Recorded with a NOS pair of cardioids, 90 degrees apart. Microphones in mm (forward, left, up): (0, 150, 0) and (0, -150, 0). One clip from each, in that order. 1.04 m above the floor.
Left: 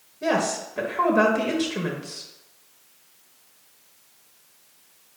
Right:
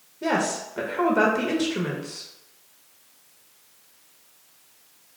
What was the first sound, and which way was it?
A woman speaking, straight ahead.